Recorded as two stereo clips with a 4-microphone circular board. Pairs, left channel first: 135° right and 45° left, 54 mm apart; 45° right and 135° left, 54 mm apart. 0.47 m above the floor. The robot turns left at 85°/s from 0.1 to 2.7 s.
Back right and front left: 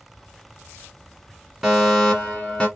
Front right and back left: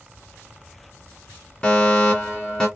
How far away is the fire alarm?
About 1.7 m.